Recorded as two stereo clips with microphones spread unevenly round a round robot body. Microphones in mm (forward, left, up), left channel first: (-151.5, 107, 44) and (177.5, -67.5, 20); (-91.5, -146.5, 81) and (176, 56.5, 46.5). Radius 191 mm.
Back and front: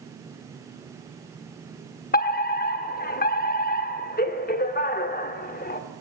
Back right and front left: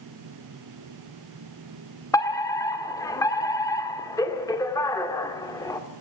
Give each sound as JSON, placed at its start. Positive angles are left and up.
{"t": 2.1, "sound": "a fire alarm", "azimuth_deg": 140, "distance_m": 1.8}